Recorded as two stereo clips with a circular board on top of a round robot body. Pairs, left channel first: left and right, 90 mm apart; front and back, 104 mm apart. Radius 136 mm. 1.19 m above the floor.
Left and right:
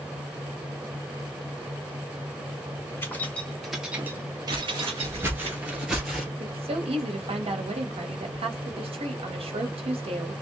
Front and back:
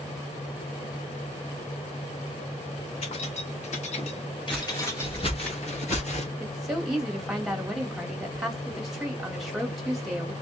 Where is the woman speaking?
90° right, 2 m.